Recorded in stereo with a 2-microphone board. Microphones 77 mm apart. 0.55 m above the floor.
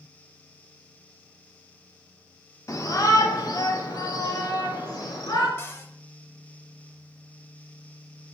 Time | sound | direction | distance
2.7 | a shout | 45° left (ahead or behind) | 0.9 m
5.6 | a cupboard door | 30° left (ahead or behind) | 0.6 m